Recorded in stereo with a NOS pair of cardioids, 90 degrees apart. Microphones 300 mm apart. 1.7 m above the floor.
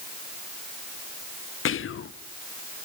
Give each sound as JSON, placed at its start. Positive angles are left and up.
{"t": 1.6, "sound": "whispering", "azimuth_deg": 45, "distance_m": 0.8}